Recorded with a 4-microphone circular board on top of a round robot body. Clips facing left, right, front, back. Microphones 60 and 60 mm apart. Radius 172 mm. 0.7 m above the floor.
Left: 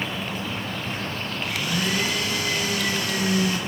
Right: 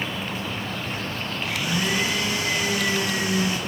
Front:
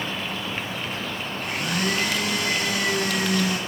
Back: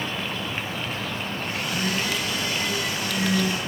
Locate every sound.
1.4 s a blender: 20° right, 6.5 m